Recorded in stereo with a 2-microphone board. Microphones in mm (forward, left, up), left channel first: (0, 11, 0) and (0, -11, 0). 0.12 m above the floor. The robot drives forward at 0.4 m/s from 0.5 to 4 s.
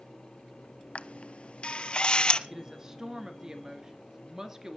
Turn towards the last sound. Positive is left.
turn(degrees=-25)  # may be behind; listen again after turning